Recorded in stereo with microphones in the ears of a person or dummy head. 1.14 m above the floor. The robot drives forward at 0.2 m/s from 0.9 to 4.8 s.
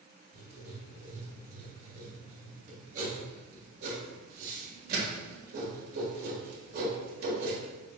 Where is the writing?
35° right (ahead or behind), 1.8 m; by 7.6 s 60° right (ahead or behind), 1.3 m.